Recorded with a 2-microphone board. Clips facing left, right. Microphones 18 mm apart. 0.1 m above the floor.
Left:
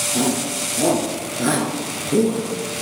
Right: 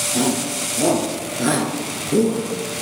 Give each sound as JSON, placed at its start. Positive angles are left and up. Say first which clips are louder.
{"t": 0.1, "sound": "a shout", "louder": "right 1 dB", "side_deg": -20, "distance_m": 2.0}